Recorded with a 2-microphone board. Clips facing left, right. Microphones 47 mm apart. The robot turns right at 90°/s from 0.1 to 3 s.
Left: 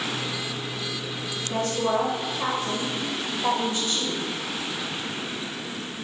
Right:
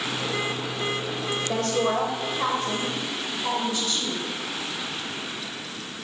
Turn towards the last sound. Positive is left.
turn(degrees=40)